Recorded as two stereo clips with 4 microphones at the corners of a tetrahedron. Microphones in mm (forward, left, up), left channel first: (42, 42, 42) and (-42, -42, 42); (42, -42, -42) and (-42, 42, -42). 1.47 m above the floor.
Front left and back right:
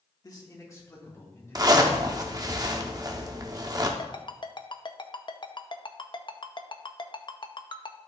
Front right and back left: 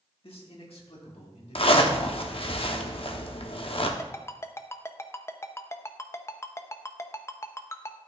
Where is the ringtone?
15° left, 0.6 m.